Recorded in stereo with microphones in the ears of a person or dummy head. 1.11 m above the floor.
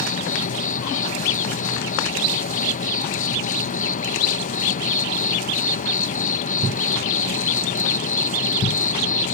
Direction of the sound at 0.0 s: 40° left (ahead or behind).